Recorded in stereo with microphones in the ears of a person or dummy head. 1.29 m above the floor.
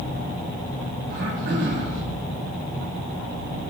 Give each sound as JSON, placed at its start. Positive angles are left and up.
{"t": 1.1, "sound": "throat clearing", "side_deg": -70, "distance_m": 1.7}